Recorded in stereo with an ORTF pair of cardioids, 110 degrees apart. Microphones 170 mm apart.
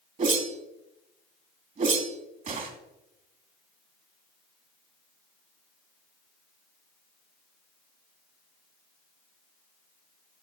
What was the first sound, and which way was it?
A whoosh, 50° right.